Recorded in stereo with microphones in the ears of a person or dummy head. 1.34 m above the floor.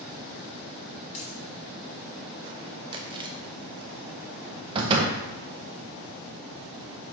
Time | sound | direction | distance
1.1 | a dropped coin | 35° left (ahead or behind) | 1.6 m
2.9 | chewing | 25° right (ahead or behind) | 0.6 m
4.8 | a door slam | 30° right (ahead or behind) | 0.9 m